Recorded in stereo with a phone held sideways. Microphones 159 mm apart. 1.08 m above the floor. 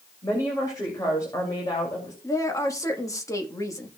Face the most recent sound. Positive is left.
turn(degrees=20)  # may be behind; listen again after turning